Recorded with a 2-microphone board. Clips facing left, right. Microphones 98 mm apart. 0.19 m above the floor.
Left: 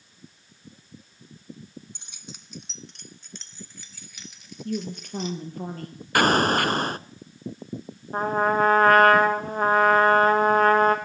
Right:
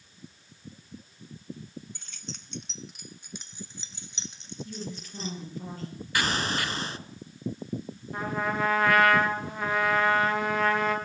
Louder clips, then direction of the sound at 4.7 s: Left 12 dB; 55° left (ahead or behind).